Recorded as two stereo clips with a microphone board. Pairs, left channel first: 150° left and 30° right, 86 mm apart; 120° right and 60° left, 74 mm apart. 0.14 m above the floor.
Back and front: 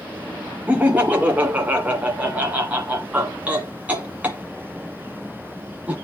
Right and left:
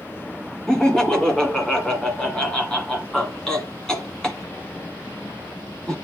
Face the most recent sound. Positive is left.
turn(degrees=-55)